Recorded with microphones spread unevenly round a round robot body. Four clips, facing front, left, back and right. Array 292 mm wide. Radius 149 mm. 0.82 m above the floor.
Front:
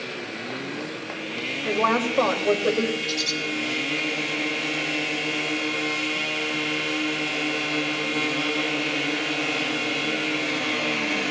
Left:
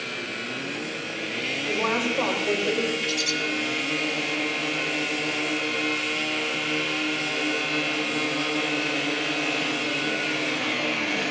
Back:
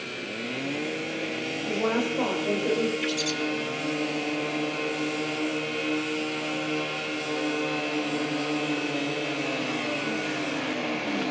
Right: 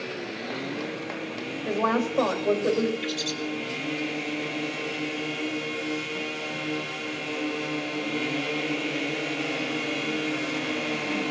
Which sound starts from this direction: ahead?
A woman speaking, at 1.6 s.